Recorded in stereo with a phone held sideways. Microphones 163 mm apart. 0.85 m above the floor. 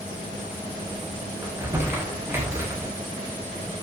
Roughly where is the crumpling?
Centre.